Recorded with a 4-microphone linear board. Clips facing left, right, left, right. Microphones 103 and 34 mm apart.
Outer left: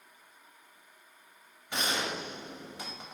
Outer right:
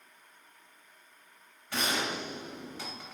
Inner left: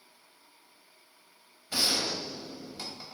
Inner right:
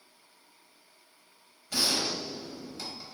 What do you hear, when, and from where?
1.7 s a gunshot: 20° left (ahead or behind), 0.8 m